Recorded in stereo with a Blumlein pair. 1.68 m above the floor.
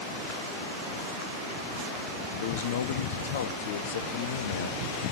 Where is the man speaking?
60° left, 0.9 m.